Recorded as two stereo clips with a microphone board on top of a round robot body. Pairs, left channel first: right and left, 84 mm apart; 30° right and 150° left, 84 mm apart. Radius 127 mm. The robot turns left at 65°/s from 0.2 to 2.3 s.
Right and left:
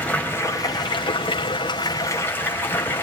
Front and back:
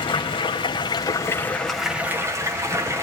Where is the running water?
20° right, 3.5 m; by 3.0 s 155° right, 3.5 m.